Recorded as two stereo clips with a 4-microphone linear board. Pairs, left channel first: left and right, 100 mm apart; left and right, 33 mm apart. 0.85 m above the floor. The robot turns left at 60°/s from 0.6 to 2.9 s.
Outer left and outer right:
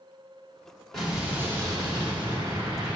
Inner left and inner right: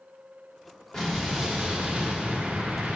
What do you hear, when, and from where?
0.9 s an explosion: 5° left, 2 m; by 3.0 s 115° right, 2 m